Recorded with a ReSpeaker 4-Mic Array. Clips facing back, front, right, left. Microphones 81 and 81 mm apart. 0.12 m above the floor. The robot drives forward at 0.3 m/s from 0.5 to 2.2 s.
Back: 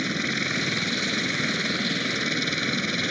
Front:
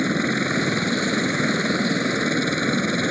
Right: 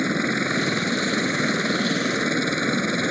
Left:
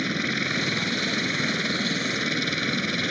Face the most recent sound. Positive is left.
turn(degrees=-45)